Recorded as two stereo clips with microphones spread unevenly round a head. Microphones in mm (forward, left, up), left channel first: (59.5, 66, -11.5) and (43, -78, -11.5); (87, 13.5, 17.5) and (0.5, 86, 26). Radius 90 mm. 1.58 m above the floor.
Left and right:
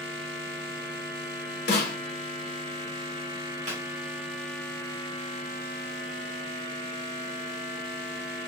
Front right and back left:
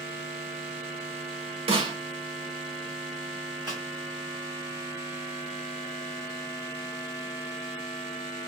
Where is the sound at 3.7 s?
145° right, 1.1 m.